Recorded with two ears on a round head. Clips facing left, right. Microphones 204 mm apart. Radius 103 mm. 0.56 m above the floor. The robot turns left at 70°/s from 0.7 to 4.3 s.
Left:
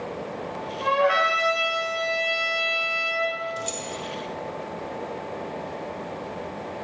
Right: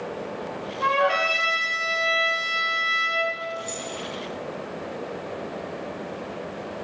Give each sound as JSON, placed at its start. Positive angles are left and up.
{"t": 0.8, "sound": "a trumpet", "azimuth_deg": 15, "distance_m": 2.0}
{"t": 3.6, "sound": "keys jangling", "side_deg": 40, "distance_m": 1.1}